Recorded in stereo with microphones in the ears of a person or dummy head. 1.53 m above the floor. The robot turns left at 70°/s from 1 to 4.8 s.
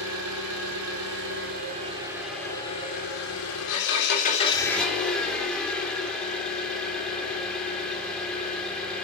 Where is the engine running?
90° right, 4 m; by 9.1 s 5° left, 4 m.